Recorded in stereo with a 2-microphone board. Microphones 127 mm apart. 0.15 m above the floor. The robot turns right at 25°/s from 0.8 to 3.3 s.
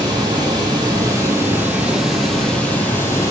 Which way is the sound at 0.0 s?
35° right.